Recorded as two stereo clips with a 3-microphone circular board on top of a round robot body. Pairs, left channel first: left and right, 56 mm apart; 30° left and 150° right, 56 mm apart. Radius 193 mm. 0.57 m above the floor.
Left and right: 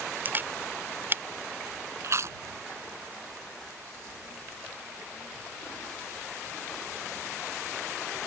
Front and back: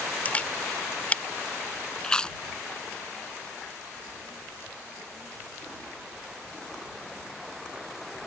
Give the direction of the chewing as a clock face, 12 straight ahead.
2 o'clock.